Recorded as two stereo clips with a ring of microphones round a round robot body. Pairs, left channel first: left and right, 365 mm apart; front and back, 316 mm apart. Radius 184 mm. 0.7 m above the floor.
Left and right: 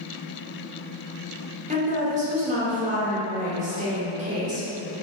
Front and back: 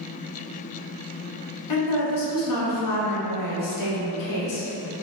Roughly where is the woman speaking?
Ahead.